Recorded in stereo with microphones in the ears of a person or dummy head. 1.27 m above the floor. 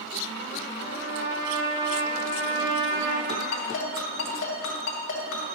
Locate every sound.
0.8 s a trumpet: 65° right (ahead or behind), 2 m
3.3 s a ringtone: 65° left (ahead or behind), 2.5 m